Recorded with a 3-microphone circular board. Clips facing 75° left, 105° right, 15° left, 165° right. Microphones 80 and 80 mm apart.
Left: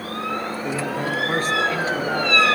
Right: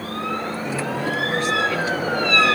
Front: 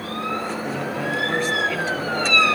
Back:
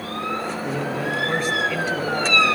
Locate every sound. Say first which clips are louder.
0.6 s a man speaking: even, back 1 dB; 105° left, 2.5 m; by 2.4 s 115° left, 1.8 m